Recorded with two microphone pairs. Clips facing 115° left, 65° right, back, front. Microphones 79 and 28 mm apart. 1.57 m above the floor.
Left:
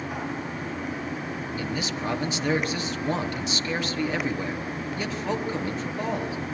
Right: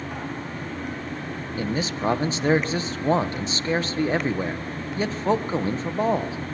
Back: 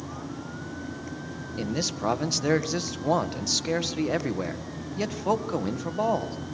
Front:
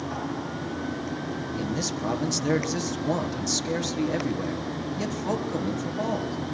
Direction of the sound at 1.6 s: 120° right.